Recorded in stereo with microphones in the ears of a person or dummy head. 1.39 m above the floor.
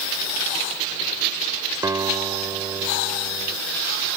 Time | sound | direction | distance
1.8 | a guitar | 15° right (ahead or behind) | ?